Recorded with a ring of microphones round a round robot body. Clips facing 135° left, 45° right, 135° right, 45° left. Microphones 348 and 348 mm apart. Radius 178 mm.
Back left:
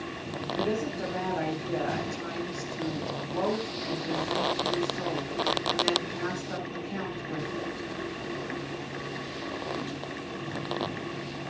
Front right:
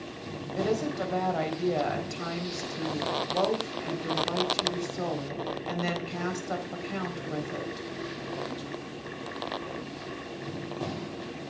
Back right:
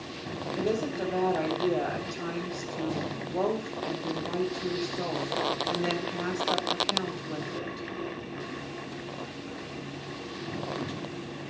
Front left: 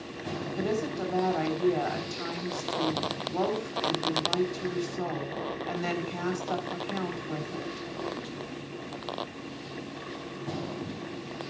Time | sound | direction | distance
0.6 | a woman speaking | 20° right | 4 m